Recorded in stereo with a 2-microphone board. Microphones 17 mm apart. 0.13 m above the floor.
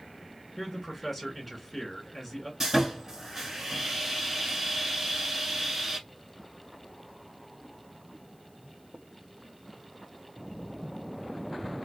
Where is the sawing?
25° right (ahead or behind), 1.2 m.